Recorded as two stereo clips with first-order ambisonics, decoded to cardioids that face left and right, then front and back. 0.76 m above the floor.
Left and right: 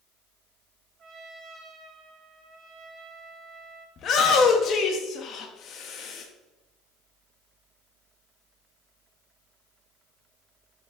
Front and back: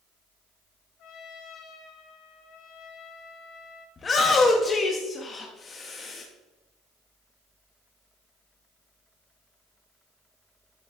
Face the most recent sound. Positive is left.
turn(degrees=55)